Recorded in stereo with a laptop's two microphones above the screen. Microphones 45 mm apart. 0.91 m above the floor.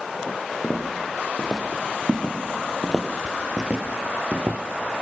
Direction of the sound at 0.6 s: 15° left (ahead or behind).